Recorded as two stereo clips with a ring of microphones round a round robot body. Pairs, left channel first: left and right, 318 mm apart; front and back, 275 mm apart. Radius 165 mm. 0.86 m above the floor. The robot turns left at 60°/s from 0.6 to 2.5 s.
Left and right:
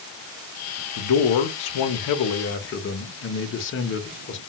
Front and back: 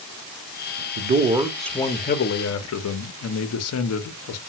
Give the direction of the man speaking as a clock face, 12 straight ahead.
8 o'clock.